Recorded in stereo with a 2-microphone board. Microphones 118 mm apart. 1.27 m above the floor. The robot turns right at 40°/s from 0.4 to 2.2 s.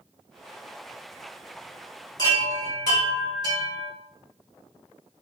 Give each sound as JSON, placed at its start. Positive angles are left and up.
{"t": 2.2, "sound": "a chime", "side_deg": 30, "distance_m": 1.3}